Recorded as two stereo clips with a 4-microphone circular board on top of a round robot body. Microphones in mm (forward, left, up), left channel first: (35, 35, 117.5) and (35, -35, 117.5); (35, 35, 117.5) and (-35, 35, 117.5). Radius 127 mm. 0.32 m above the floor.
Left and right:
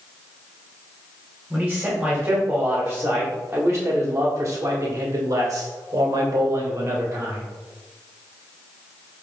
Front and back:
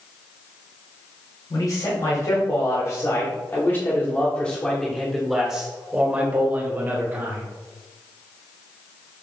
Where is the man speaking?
5° right, 3 m; by 7.5 s 135° right, 3 m.